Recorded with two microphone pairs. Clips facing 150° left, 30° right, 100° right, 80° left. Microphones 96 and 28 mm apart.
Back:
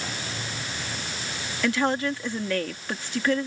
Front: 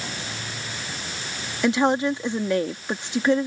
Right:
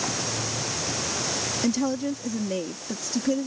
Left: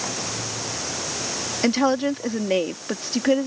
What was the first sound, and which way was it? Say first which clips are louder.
A woman speaking: front 4 dB, left 7 dB; 40° left.